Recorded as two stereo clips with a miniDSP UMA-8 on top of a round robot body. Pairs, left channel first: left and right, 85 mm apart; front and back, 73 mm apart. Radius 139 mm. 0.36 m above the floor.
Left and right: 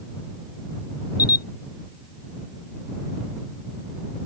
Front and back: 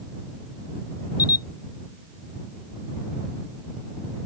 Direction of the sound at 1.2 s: 40° left.